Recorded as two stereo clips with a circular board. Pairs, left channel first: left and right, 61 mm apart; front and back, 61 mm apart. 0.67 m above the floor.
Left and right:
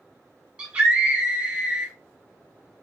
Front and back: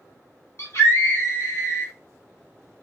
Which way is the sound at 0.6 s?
20° right.